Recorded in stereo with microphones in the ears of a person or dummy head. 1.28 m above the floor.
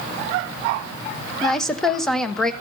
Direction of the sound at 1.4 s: 5° left (ahead or behind).